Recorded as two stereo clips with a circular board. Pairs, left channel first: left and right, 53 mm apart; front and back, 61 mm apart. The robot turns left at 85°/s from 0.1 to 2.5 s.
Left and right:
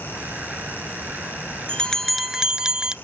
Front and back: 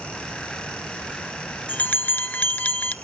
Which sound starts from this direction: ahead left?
A bell, at 1.7 s.